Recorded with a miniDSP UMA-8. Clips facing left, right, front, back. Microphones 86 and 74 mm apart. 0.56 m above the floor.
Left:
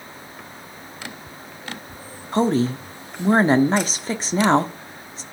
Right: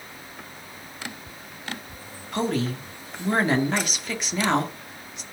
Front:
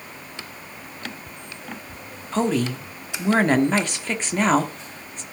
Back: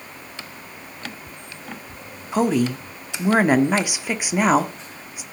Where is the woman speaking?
110° left, 1.3 m.